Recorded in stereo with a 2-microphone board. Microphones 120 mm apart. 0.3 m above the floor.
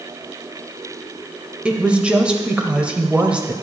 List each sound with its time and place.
1.6 s a woman speaking: 10° right (ahead or behind), 0.9 m